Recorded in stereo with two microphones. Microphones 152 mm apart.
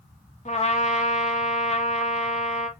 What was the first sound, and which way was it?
A trumpet, 50° left (ahead or behind).